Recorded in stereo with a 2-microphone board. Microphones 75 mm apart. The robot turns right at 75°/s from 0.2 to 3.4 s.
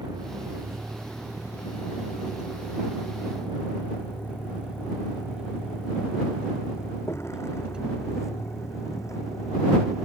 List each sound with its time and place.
0.0 s a vehicle: 85° right; by 10.1 s 55° left (ahead or behind)